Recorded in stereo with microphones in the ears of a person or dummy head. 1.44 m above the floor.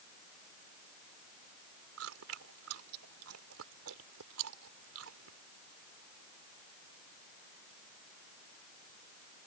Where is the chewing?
80° right.